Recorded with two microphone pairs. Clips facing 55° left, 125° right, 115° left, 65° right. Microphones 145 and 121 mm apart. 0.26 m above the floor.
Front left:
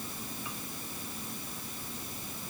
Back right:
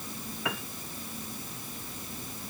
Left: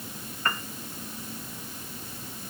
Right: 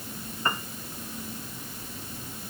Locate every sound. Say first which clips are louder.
0.5 s a piano: back right 8 dB, right 1 dB; 135° right